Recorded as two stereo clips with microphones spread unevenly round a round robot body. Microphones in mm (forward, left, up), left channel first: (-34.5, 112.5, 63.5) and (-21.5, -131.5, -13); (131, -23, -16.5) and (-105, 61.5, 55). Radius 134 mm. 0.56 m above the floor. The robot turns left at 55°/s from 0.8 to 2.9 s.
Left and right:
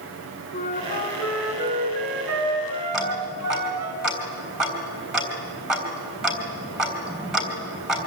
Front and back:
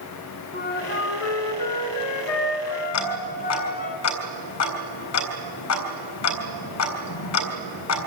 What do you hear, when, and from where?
0.5 s a flute: 35° left, 2.5 m; by 3.9 s 80° right, 2.5 m
2.9 s ticking: straight ahead, 3.5 m